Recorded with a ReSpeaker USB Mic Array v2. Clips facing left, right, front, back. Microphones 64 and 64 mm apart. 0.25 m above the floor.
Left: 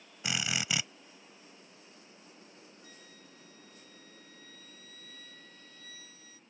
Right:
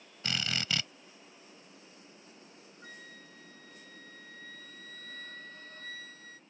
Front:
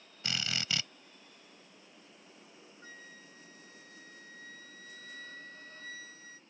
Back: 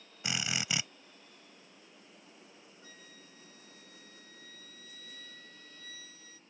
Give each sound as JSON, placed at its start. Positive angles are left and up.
{"t": 0.2, "sound": "a drill", "azimuth_deg": 145}
{"t": 2.8, "sound": "a flute", "azimuth_deg": -50}